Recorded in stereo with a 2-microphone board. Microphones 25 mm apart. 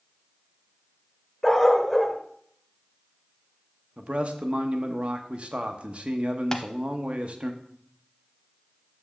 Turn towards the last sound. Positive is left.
turn(degrees=25)  # may be behind; listen again after turning